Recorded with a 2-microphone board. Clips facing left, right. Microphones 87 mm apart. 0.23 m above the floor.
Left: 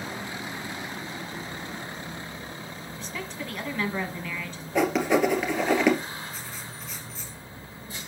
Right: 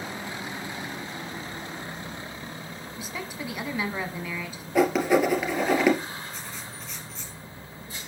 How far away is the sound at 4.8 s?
About 2 m.